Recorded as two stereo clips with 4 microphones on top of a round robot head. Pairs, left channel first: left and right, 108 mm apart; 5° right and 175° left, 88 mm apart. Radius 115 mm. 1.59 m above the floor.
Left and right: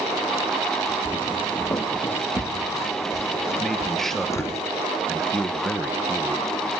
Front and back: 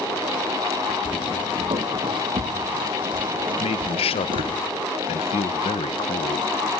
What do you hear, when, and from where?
1.1 s footsteps: 155° left, 2 m
3.6 s a man speaking: 5° left, 1.3 m